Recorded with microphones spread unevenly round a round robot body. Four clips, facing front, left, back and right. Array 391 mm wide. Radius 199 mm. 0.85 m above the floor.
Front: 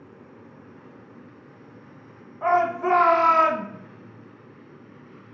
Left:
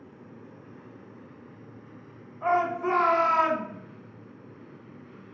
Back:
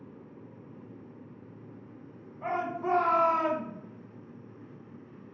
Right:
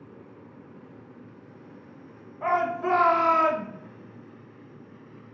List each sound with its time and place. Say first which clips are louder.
2.4 s a shout: even, front 10 dB; 45° right, 1.0 m; by 3.7 s 20° left, 0.8 m